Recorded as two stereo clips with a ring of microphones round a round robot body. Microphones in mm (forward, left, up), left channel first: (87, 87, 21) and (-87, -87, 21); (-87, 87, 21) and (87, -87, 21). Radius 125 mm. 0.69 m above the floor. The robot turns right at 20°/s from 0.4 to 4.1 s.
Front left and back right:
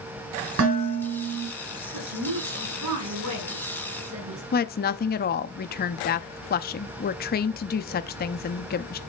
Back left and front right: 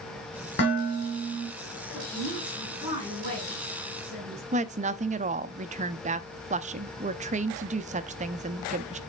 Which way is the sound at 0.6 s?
175° right.